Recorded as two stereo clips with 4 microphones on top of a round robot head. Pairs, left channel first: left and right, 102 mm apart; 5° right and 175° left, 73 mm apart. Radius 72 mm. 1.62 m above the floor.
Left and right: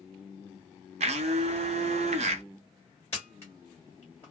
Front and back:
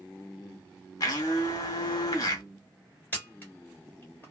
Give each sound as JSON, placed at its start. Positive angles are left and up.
{"t": 1.0, "sound": "a blender", "azimuth_deg": -60, "distance_m": 0.5}
{"t": 3.1, "sound": "a camera shutter", "azimuth_deg": 35, "distance_m": 1.6}